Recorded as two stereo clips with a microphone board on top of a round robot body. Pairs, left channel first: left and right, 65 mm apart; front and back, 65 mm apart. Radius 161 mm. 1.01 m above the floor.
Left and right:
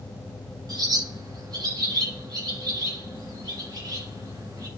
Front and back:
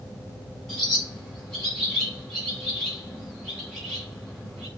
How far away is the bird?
About 7 m.